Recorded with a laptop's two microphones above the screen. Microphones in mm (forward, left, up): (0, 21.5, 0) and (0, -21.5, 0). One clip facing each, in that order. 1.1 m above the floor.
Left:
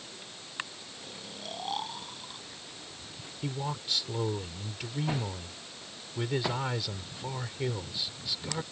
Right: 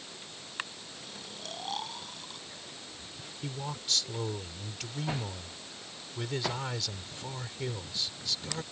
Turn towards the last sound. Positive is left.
turn(degrees=10)  # may be behind; listen again after turning